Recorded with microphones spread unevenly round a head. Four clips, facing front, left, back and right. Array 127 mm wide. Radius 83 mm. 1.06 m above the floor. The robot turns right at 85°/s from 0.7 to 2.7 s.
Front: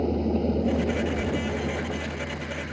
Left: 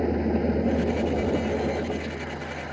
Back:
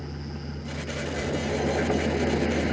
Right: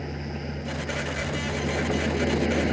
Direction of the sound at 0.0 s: 55° left.